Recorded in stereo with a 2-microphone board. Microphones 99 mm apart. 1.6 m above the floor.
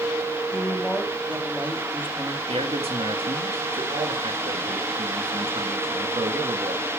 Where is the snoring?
No snoring in this recording.